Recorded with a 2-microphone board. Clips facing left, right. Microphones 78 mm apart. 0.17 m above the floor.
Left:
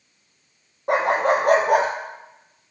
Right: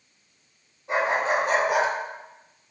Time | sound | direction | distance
0.9 | a dog barking | 65° left (ahead or behind) | 2.5 m